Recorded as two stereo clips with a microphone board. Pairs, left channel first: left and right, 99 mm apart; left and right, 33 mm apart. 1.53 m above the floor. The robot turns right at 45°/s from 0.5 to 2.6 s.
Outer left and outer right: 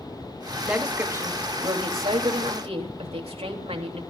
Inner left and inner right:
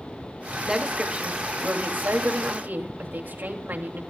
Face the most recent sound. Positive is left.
turn(degrees=-85)